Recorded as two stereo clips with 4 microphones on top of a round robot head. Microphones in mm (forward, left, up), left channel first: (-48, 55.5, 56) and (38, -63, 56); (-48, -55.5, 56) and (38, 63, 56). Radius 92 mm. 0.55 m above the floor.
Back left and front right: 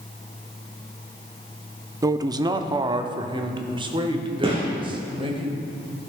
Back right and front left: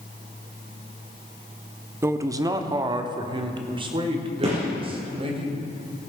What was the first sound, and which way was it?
A man speaking, 5° right.